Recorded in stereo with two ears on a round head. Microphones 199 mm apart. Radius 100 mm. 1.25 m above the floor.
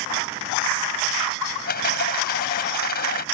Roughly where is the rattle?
Left.